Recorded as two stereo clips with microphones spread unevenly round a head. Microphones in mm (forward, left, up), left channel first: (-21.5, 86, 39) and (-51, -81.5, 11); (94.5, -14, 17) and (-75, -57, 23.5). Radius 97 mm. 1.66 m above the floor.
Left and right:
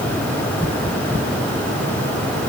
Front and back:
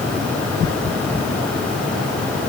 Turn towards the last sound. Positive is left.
No sound to turn to.